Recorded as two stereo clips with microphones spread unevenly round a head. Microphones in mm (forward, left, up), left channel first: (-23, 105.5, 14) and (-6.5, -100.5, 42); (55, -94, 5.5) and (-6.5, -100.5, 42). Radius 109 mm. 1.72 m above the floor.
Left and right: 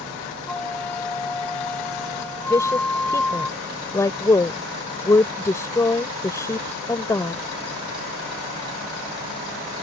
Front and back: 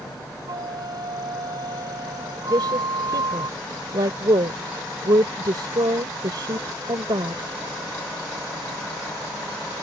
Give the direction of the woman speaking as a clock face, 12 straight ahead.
6 o'clock.